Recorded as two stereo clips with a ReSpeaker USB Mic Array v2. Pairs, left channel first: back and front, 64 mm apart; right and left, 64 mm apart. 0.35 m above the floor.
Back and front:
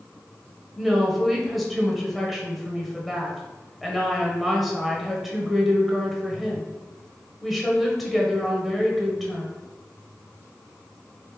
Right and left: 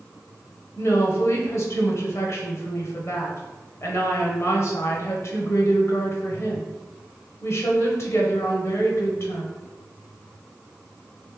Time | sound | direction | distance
0.8 | a woman speaking | 90° right | 1.2 m